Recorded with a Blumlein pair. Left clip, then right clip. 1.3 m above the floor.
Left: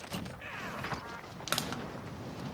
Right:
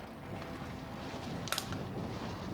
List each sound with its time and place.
1.5 s crushing: 10° left, 0.9 m